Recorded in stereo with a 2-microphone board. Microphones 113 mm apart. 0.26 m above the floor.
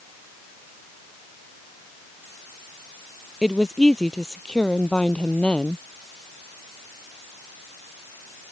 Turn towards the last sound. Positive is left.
turn(degrees=10)  # may be behind; listen again after turning